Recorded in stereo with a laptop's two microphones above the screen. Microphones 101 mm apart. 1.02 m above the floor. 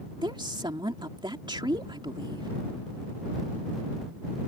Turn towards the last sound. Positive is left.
turn(degrees=-50)  # may be behind; listen again after turning